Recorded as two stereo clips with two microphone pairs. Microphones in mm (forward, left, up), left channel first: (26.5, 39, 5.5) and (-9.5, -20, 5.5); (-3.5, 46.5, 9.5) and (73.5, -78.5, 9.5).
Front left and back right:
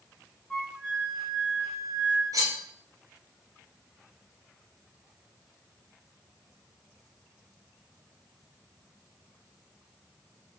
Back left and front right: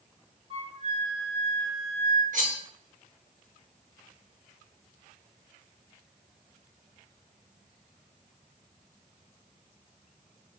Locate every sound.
0.5 s a flute: 25° right, 1.2 m
2.3 s cutlery clinking: 85° right, 1.3 m